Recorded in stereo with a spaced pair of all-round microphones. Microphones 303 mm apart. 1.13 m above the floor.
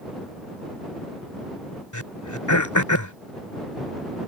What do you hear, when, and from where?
1.9 s throat clearing: 80° left